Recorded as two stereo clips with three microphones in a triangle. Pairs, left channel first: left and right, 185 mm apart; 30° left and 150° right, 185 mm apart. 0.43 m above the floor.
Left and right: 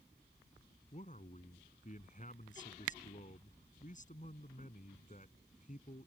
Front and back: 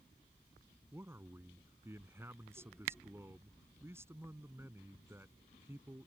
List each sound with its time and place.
0.9 s a man speaking: 135° left